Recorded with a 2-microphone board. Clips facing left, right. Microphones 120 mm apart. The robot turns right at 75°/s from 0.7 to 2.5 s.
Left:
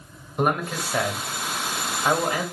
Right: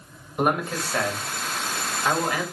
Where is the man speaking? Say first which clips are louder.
Even; centre (ahead or behind), 1.4 m; by 2.4 s 20° left (ahead or behind), 1.4 m.